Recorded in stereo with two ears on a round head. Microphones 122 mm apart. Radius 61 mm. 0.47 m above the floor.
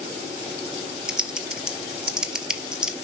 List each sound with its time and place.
1.1 s typing on a keyboard: 5° right (ahead or behind), 1.2 m